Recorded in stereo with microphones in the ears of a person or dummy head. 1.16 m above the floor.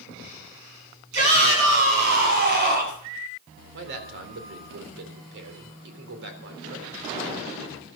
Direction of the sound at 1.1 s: 60° right (ahead or behind).